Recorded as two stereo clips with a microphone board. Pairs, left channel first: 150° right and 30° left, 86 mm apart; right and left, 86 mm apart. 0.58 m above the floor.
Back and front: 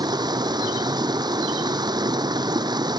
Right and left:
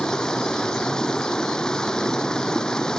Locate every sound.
0.0 s running water: 5° right